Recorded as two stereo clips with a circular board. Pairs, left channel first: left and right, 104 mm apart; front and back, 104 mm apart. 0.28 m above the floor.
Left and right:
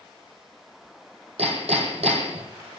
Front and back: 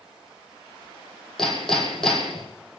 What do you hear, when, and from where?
1.4 s hammering: 85° right, 3.5 m